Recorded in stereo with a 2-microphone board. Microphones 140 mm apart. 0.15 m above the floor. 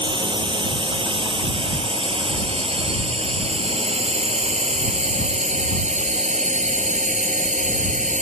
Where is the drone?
35° right (ahead or behind); by 8.2 s 60° right (ahead or behind).